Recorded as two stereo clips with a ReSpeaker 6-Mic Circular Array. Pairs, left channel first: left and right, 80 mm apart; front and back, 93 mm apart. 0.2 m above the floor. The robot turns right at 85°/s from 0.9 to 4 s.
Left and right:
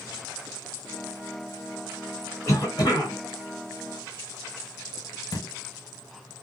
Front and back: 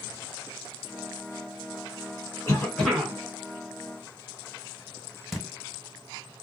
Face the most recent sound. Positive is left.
turn(degrees=90)